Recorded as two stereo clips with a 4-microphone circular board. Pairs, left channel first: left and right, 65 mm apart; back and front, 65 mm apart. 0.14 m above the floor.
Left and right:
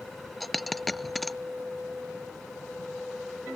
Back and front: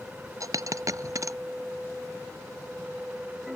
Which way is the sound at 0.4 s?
Straight ahead.